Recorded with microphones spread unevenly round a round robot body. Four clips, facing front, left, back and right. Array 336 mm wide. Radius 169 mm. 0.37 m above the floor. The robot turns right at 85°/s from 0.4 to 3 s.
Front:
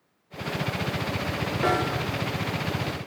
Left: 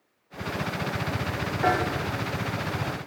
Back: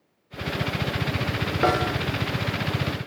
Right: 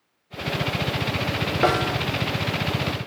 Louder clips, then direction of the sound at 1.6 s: Right 3 dB, back 3 dB; 130° right.